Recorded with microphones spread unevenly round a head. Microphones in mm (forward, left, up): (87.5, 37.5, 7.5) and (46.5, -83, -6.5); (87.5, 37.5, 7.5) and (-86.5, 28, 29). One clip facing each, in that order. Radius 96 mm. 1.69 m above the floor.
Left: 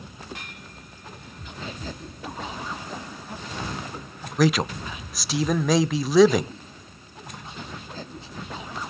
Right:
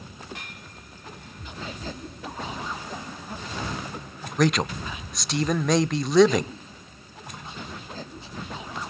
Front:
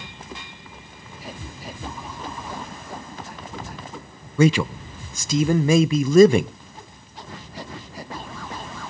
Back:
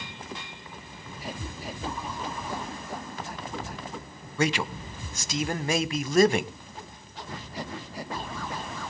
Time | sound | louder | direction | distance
4.4 | a man speaking | left 1 dB, front 9 dB | 15° right | 0.6 m